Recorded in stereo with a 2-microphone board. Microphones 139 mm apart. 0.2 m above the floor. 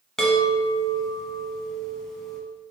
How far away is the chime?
About 1.6 m.